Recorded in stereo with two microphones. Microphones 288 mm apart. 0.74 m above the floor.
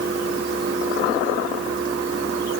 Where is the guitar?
No guitar in this recording.